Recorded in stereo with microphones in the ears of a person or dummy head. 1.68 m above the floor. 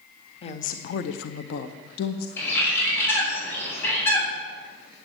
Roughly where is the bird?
Centre.